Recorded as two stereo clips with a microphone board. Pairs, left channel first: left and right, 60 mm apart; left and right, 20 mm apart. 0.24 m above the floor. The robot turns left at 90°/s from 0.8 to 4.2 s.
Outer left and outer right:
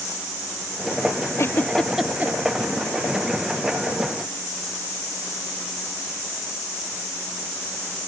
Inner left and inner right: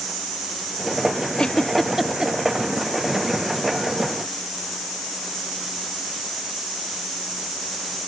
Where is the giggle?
50° left (ahead or behind); by 2.3 s 35° right (ahead or behind).